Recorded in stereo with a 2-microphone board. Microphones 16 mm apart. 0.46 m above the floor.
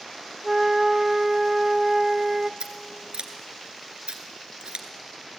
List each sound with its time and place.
0.4 s a flute: 20° right (ahead or behind), 0.9 m
2.6 s scissors: 65° right (ahead or behind), 2.5 m